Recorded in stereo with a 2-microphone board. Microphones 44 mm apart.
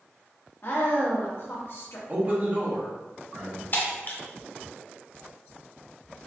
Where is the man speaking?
40° right (ahead or behind), 1.2 m.